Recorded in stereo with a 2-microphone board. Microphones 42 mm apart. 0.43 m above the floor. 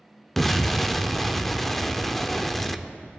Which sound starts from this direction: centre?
An explosion, at 0.4 s.